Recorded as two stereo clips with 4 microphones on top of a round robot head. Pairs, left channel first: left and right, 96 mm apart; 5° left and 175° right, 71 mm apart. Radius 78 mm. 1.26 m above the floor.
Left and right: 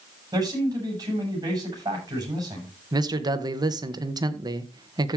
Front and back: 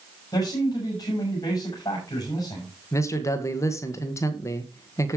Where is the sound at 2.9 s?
45° right, 1.7 m.